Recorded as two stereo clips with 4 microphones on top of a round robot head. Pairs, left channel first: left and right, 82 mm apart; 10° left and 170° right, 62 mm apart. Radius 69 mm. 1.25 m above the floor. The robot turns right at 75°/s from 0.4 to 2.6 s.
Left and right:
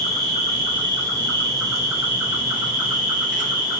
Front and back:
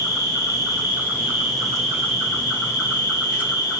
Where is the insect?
175° right, 1.8 m; by 3.8 s 10° right, 1.8 m.